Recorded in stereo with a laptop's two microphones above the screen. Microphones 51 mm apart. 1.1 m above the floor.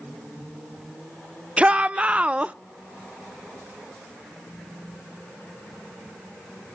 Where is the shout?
20° right (ahead or behind), 0.5 m.